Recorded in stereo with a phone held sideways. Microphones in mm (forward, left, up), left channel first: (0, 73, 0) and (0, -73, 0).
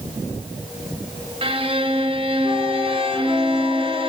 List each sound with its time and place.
1.4 s a violin: 40° right (ahead or behind), 0.7 m